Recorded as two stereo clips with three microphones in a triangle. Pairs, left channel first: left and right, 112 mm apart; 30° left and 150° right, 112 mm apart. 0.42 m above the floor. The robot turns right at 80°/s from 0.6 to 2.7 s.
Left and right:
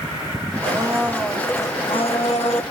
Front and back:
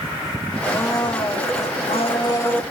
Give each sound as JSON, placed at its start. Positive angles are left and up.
{"t": 0.6, "sound": "a blender", "azimuth_deg": -50, "distance_m": 2.0}